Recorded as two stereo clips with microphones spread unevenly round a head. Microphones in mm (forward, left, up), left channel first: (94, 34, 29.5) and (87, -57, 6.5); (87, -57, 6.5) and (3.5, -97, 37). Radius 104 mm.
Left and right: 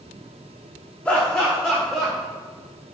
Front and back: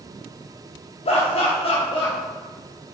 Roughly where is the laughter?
Ahead.